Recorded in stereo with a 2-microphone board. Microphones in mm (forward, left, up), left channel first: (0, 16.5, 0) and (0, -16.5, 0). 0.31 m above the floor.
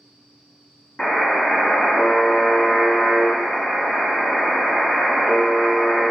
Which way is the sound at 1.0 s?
25° left (ahead or behind).